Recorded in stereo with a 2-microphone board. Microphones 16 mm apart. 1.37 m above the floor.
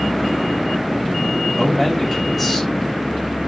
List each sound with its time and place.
1.6 s a man speaking: centre (ahead or behind), 6 m